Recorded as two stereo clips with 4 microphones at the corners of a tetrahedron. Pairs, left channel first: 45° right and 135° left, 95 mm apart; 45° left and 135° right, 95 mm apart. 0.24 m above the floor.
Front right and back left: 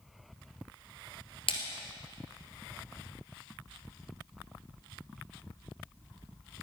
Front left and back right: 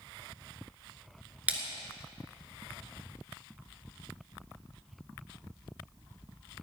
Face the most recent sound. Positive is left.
turn(degrees=-60)